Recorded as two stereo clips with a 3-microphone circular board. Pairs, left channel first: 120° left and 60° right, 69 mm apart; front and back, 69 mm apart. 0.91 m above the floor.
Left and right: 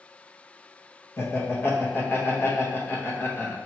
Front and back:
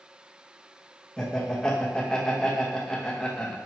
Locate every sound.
1.2 s laughter: 75° left, 0.9 m